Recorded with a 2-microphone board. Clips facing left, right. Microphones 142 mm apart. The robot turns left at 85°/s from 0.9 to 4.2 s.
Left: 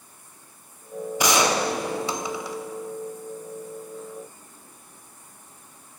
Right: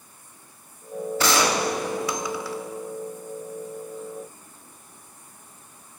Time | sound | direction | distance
1.2 | a gunshot | 15° left (ahead or behind) | 0.5 m